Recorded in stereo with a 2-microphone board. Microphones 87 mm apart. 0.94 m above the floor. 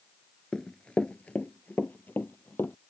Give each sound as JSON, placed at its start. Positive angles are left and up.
{"t": 0.5, "sound": "running footsteps", "side_deg": 10}